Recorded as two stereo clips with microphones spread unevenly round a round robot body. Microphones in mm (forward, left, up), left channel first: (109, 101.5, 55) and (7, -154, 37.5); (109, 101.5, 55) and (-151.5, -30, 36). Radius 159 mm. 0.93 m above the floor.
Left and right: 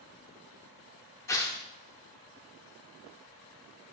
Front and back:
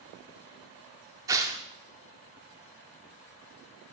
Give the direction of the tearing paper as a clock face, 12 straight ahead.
8 o'clock.